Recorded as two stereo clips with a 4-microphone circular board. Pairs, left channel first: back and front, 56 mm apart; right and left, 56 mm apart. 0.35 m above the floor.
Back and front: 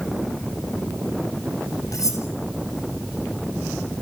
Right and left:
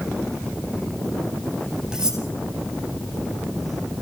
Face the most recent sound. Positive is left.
turn(degrees=165)